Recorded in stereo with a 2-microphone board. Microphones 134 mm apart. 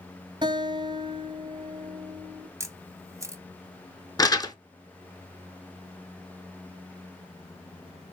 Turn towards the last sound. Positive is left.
turn(degrees=30)  # may be behind; listen again after turning